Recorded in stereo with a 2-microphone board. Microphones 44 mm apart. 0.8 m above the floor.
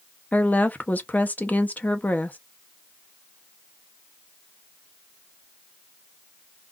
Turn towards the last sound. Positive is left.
turn(degrees=40)  # may be behind; listen again after turning